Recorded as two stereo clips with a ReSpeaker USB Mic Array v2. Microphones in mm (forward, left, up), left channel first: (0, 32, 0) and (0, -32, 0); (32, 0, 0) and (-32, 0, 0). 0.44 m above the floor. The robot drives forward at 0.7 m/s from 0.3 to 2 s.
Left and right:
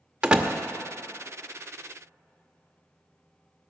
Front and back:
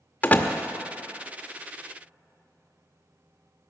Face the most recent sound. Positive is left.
turn(degrees=-165)